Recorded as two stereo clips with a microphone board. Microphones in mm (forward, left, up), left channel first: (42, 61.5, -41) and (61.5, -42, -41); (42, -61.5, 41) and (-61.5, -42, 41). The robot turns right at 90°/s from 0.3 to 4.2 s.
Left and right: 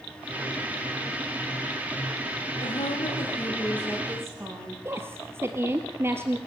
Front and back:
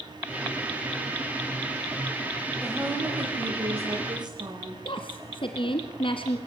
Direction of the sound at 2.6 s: 75° left.